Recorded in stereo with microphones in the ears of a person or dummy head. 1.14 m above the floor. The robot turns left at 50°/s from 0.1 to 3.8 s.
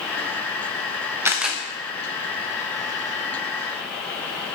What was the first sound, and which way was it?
A camera shutter, 15° right (ahead or behind).